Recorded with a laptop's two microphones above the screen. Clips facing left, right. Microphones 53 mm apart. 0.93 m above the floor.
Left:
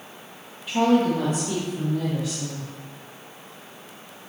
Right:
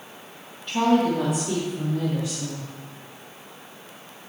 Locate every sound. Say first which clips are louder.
0.7 s a woman speaking: left 1 dB; 5° left (ahead or behind), 1.1 m; by 2.7 s 15° right (ahead or behind), 4 m